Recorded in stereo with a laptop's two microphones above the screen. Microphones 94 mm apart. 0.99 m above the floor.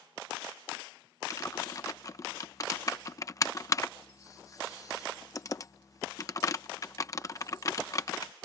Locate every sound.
1.3 s typing on a keyboard: 35° left (ahead or behind)